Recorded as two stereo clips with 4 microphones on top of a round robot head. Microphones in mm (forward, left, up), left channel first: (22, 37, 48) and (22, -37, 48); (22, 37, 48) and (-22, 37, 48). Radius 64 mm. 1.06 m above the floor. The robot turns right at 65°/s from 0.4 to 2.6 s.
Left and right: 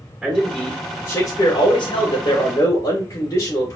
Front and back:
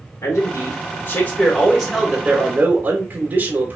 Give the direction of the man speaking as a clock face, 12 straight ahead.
1 o'clock.